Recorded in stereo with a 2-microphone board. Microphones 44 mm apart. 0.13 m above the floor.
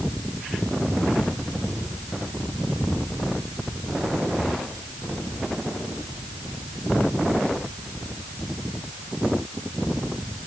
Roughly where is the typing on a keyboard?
I don't hear typing on a keyboard.